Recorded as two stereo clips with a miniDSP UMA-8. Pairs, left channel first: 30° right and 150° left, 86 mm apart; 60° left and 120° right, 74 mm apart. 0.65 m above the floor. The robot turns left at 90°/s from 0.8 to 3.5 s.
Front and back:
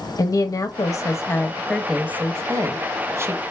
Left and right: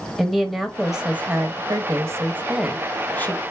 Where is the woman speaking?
30° right, 0.7 m; by 3.4 s 95° left, 0.7 m.